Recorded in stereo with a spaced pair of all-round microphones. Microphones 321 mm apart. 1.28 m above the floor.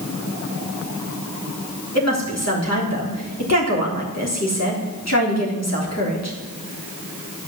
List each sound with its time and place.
1.9 s a woman speaking: 50° left (ahead or behind), 3.5 m